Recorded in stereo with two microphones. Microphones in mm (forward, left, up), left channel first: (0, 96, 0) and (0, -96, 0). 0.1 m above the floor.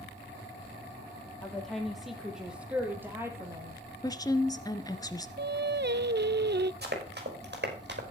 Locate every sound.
1.4 s a woman speaking: 5° left (ahead or behind), 4.5 m; by 3.8 s 20° right (ahead or behind), 3.5 m
4.0 s a woman speaking: 20° left (ahead or behind), 1.3 m
5.4 s singing: 65° right (ahead or behind), 0.5 m
6.8 s running footsteps: 55° right (ahead or behind), 6 m; by 8.0 s 65° right (ahead or behind), 5.5 m